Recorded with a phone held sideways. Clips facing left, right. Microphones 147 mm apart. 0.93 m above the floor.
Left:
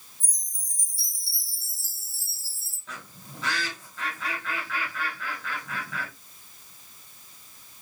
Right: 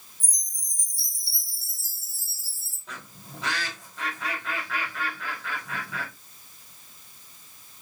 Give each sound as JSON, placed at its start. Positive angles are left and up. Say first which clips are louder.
{"t": 0.2, "sound": "a chime", "louder": "right 2 dB", "side_deg": -20, "distance_m": 3.0}
{"t": 2.9, "sound": "a bird", "louder": "even", "side_deg": -15, "distance_m": 2.5}